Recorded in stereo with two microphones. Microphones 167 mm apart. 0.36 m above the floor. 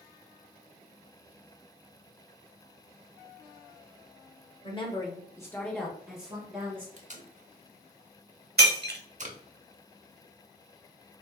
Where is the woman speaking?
30° left (ahead or behind), 1.0 m; by 6.9 s 15° right (ahead or behind), 1.5 m.